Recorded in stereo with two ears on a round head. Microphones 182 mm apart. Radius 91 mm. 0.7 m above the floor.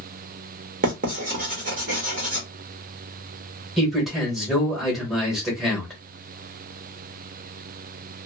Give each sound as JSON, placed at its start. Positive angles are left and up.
{"t": 0.8, "sound": "writing", "side_deg": -40, "distance_m": 1.2}
{"t": 3.8, "sound": "a man speaking", "side_deg": 0, "distance_m": 1.3}